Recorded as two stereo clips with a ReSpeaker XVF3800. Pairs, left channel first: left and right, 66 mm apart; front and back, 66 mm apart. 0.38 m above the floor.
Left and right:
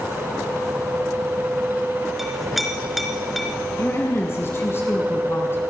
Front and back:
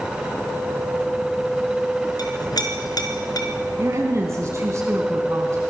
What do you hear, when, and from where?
2.2 s a clink: straight ahead, 3.5 m
3.8 s a woman speaking: 140° left, 3.5 m